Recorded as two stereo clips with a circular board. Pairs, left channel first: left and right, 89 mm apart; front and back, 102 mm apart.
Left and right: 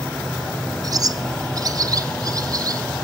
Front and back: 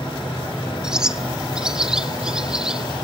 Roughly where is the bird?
Right.